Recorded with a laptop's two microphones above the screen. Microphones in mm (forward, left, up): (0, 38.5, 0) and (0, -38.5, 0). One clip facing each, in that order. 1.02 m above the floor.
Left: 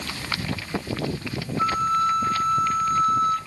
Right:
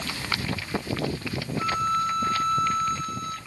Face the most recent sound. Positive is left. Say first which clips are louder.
# left 4 dB
turn(degrees=45)  # may be behind; listen again after turning